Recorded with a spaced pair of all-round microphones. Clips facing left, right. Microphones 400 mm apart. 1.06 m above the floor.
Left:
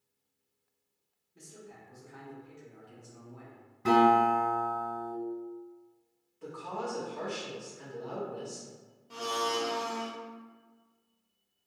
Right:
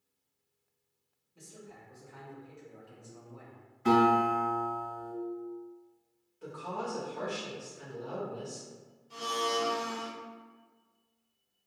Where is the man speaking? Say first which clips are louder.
Even; 30° left (ahead or behind), 1.3 m.